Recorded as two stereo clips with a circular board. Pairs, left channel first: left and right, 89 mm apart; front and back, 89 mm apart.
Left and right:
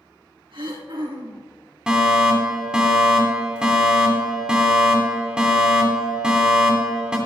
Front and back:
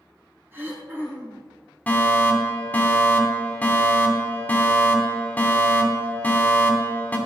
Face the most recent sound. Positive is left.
turn(degrees=-25)